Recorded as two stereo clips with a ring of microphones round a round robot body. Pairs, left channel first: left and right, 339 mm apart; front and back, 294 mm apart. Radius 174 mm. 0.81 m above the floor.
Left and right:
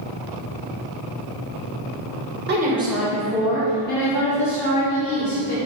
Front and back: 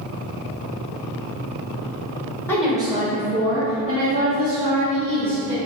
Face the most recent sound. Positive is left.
turn(degrees=145)